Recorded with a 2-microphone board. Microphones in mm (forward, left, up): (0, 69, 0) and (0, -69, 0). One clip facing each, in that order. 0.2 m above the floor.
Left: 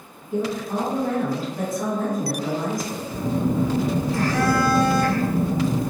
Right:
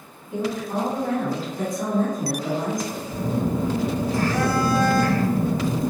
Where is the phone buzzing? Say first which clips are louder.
Left 2 dB; 15° right (ahead or behind), 1.5 m.